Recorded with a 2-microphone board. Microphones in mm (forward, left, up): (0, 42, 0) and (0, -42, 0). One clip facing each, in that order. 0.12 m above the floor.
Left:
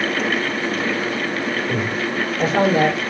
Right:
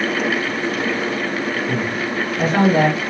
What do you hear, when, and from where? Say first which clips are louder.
1.7 s a man speaking: even; 50° right (ahead or behind), 2.5 m